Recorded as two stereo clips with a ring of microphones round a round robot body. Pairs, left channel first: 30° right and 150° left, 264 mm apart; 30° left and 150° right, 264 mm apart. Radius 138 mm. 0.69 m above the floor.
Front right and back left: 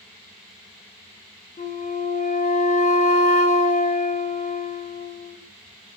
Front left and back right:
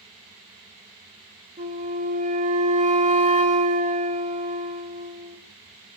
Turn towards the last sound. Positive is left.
turn(degrees=-90)